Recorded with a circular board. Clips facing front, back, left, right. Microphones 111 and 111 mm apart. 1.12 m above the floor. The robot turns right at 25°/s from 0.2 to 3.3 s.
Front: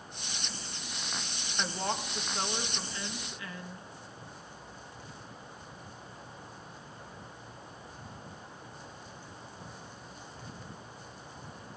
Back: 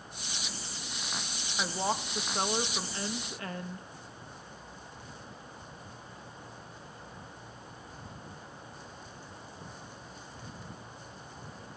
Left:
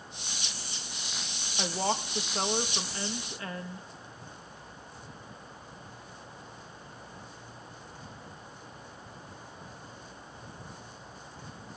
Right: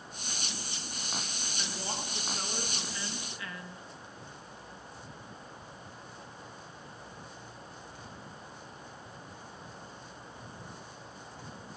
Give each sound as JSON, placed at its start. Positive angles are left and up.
{"t": 1.6, "sound": "a woman speaking", "azimuth_deg": 100, "distance_m": 1.4}